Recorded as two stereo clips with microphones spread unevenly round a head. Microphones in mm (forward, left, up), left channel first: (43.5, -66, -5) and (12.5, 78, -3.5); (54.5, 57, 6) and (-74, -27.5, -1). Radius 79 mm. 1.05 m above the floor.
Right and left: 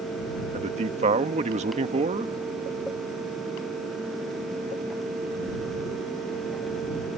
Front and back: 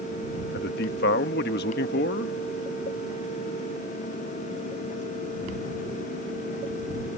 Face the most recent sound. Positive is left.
turn(degrees=55)